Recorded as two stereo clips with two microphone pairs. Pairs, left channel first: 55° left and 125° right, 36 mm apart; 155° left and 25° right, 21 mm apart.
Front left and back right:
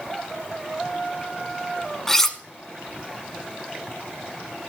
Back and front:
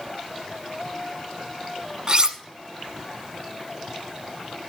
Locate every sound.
2.1 s cutlery clinking: 20° right, 0.9 m